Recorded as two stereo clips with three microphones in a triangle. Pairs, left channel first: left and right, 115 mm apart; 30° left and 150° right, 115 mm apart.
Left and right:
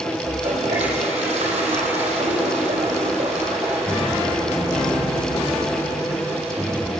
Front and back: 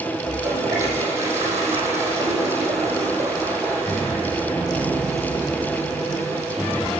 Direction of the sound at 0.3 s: 85° right.